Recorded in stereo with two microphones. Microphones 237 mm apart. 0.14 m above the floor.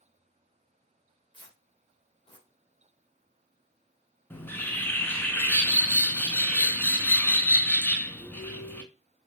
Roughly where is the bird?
Centre.